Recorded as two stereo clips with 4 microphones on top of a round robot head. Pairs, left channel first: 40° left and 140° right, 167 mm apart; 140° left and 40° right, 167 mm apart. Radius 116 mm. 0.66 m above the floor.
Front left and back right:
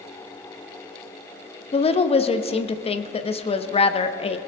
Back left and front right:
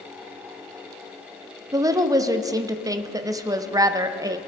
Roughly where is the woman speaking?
Ahead.